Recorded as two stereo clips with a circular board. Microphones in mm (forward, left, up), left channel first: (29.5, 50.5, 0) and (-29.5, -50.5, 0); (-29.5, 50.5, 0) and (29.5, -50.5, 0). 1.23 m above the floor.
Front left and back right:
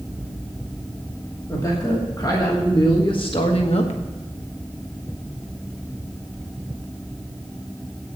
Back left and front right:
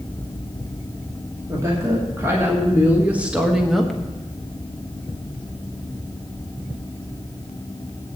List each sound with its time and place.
1.5 s a woman speaking: straight ahead, 2.5 m; by 4.0 s 35° left, 1.1 m